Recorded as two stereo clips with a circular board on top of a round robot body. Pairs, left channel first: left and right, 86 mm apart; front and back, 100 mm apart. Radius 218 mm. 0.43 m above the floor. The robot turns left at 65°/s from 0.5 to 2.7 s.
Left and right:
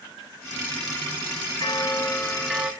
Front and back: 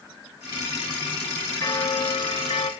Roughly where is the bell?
Ahead left.